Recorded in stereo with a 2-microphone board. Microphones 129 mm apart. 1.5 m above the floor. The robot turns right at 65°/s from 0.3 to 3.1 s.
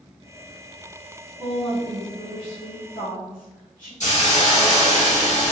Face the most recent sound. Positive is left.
turn(degrees=65)  # may be behind; listen again after turning